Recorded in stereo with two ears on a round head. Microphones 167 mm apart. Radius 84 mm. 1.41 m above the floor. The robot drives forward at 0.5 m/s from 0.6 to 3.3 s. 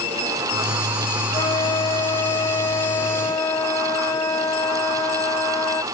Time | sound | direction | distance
1.3 | a flute | 25° left (ahead or behind) | ?